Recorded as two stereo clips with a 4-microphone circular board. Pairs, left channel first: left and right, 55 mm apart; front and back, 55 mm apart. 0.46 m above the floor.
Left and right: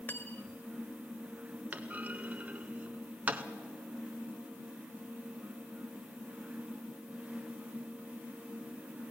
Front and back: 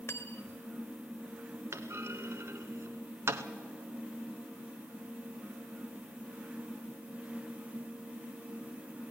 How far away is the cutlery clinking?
About 0.9 m.